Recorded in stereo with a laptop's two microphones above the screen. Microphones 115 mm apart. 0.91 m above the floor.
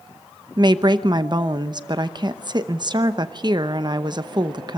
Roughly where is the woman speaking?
Right.